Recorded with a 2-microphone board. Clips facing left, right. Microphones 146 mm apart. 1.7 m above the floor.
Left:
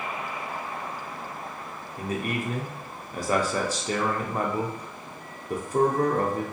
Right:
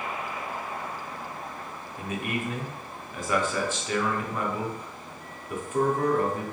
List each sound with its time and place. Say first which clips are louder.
2.0 s a man speaking: left 2 dB; 35° left (ahead or behind), 0.5 m